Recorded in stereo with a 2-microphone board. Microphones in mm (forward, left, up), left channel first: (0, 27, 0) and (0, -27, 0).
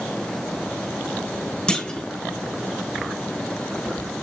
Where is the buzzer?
No buzzer in this recording.